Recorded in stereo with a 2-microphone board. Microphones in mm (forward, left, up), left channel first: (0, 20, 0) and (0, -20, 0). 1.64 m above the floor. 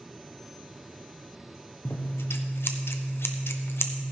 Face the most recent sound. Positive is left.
turn(degrees=70)  # may be behind; listen again after turning